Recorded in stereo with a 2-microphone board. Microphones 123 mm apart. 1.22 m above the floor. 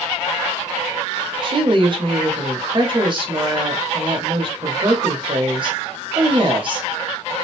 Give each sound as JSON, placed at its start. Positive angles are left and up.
{"t": 1.4, "sound": "a woman speaking", "side_deg": -40, "distance_m": 0.8}